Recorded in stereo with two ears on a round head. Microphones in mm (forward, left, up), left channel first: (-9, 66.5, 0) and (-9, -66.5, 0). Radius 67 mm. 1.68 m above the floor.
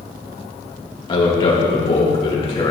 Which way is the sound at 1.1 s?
40° left (ahead or behind).